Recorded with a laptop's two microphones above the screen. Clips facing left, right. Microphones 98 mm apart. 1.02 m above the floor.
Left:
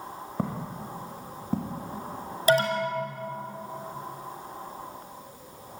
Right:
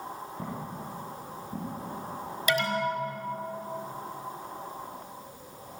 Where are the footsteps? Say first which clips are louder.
Left 7 dB; 70° left (ahead or behind), 3.5 m; by 1.8 s 75° left (ahead or behind), 3.5 m.